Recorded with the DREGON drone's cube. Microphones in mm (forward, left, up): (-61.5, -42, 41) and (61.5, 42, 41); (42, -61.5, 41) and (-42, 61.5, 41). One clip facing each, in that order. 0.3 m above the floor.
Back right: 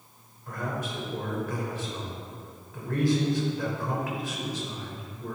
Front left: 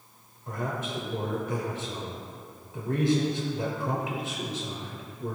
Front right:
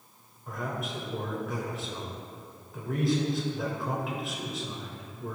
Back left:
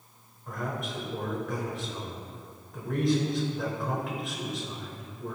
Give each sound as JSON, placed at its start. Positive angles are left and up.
{"t": 0.5, "sound": "a man speaking", "azimuth_deg": 30, "distance_m": 0.9}